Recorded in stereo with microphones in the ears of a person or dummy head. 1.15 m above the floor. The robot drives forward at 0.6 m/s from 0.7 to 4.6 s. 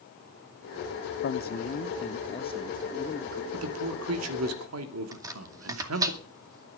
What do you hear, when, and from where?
1.2 s a man speaking: 60° left (ahead or behind), 0.9 m; by 3.4 s 25° left (ahead or behind), 1.9 m
3.5 s a man speaking: 85° right, 2.5 m; by 6.1 s 80° right, 2.5 m
5.1 s chopping: 20° right (ahead or behind), 2 m